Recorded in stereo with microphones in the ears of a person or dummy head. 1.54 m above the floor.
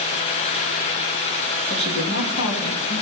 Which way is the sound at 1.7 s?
75° left (ahead or behind).